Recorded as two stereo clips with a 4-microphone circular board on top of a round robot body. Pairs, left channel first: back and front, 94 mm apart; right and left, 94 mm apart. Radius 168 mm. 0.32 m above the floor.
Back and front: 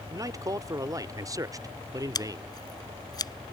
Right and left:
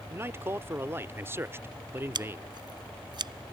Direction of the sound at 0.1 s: 35° left.